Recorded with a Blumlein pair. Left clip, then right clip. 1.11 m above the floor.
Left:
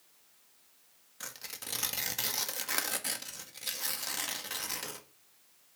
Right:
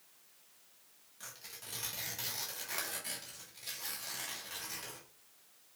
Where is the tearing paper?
60° left, 1.0 m.